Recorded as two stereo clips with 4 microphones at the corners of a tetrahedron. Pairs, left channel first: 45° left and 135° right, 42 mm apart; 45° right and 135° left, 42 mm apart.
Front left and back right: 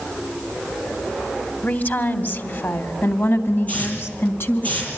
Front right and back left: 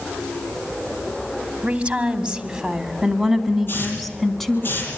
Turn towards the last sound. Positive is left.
turn(degrees=-10)